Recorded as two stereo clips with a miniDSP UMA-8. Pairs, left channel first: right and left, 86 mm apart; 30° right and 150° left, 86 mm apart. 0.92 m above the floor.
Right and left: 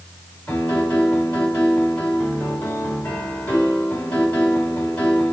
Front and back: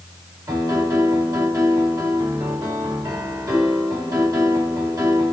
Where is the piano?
165° right, 4 m.